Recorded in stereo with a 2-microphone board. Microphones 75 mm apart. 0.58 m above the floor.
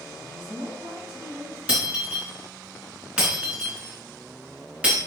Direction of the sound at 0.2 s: 80° right.